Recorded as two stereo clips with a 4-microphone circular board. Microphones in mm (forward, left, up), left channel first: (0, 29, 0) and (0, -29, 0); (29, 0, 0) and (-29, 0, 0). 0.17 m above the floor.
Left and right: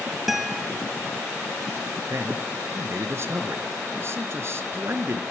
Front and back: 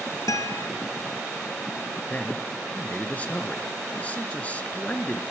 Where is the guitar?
5° right, 1.2 m.